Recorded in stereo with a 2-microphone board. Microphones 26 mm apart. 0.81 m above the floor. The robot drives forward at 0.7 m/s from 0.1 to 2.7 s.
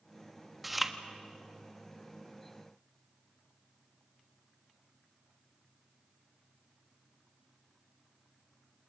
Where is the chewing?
5° right (ahead or behind), 1.2 m.